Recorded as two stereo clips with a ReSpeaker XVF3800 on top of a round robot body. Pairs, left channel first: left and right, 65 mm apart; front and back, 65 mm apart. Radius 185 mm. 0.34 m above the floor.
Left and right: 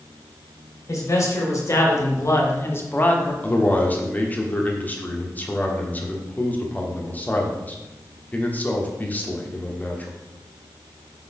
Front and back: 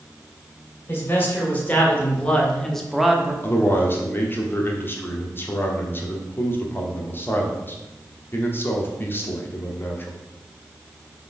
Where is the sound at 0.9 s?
60° left, 3 m; by 3.3 s 125° left, 1.3 m.